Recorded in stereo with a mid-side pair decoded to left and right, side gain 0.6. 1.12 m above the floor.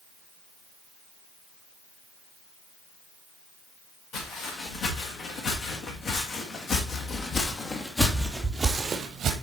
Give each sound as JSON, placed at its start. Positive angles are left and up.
{"t": 4.1, "sound": "footsteps", "azimuth_deg": 65, "distance_m": 4.5}